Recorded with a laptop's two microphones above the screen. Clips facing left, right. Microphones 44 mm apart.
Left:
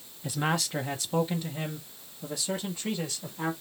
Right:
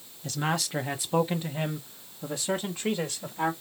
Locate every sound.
0.2 s a man speaking: 15° left (ahead or behind), 0.6 m; by 3.5 s 50° right (ahead or behind), 2 m